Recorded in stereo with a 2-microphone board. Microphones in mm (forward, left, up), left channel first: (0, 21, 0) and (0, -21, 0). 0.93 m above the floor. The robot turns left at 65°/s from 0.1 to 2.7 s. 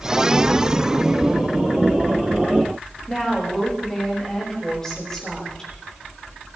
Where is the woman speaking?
20° left (ahead or behind), 5.5 m.